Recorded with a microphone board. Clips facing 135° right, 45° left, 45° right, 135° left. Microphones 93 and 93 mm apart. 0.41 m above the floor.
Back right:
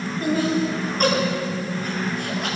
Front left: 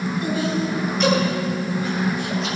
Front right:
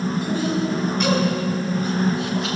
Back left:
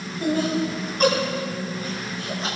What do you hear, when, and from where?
0.2 s laughter: 175° left, 3.5 m; by 2.6 s 165° right, 6 m